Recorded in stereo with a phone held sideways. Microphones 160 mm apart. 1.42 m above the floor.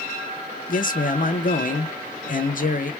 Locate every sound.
0.7 s a man speaking: 60° left (ahead or behind), 0.6 m